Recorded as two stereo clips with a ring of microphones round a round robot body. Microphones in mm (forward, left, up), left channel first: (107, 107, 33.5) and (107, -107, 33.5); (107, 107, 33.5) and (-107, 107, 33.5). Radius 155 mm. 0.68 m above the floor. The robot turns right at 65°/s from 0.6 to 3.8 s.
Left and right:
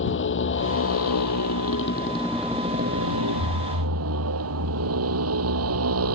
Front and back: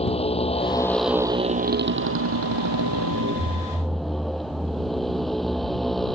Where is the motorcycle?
65° left; by 6.2 s 90° right.